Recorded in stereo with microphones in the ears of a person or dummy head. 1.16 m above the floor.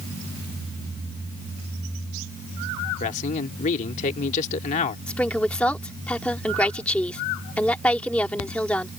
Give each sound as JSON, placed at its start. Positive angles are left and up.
{"t": 3.0, "sound": "a man speaking", "side_deg": 35}
{"t": 5.1, "sound": "a woman speaking", "side_deg": 5}